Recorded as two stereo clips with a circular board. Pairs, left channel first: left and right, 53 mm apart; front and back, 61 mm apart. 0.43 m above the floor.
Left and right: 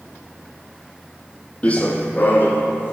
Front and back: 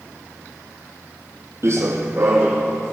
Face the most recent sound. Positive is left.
turn(degrees=135)